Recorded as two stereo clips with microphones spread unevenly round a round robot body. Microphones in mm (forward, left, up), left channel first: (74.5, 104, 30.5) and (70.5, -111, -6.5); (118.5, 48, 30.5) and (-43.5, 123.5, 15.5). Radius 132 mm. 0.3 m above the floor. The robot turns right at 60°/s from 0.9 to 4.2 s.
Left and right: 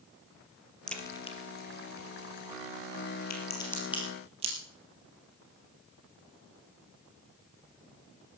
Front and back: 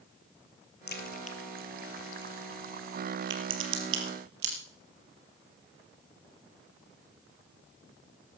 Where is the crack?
Straight ahead, 3.5 m; by 4.5 s 160° right, 3.5 m.